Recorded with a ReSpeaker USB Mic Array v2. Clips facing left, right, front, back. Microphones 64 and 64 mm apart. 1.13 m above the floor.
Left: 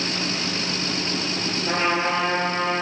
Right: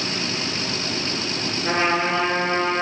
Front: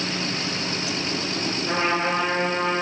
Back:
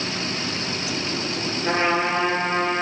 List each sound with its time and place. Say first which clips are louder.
1.6 s a trumpet: right 2 dB, back 3 dB; 135° right, 4.5 m